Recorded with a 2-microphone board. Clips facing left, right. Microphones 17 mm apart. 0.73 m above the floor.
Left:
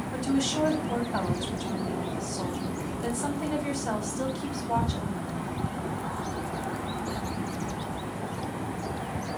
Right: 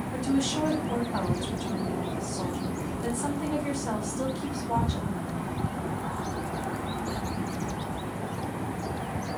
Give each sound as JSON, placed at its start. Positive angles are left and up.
{"t": 0.1, "sound": "a woman speaking", "side_deg": 75, "distance_m": 3.5}